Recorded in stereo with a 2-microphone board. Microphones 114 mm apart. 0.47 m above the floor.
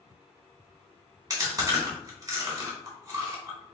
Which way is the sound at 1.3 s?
35° right (ahead or behind).